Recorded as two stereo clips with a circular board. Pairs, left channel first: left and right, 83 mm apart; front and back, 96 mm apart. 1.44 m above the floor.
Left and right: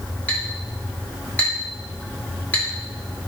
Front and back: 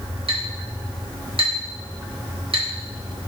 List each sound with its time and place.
0.3 s a clink: 160° left, 2.5 m